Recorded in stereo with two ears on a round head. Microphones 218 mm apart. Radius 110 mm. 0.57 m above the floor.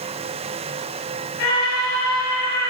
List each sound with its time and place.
1.4 s a scream: 60° left (ahead or behind), 8.5 m